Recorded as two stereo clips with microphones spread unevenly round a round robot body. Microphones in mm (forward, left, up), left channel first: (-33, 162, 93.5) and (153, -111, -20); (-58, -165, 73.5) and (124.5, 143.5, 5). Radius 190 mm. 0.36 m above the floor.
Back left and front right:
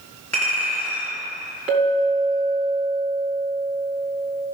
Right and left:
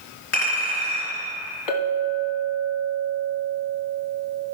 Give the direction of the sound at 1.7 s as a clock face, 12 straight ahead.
5 o'clock.